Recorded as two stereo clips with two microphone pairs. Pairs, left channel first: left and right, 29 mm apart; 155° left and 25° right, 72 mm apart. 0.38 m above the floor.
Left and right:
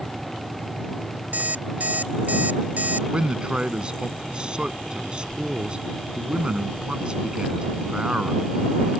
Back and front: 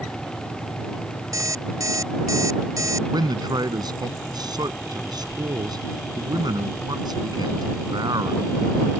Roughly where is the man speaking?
Ahead right.